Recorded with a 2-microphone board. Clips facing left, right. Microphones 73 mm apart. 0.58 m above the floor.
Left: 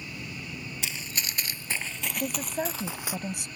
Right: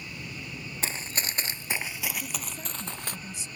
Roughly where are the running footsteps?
Right.